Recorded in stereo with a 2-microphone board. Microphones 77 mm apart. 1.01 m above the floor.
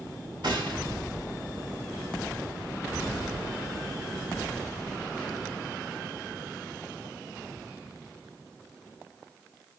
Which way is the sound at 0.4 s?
75° right (ahead or behind).